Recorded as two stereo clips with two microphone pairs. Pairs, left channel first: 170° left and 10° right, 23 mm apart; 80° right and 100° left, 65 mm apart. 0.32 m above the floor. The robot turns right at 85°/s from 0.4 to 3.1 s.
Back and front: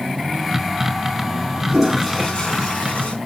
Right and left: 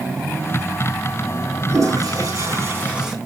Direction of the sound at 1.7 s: 65° left.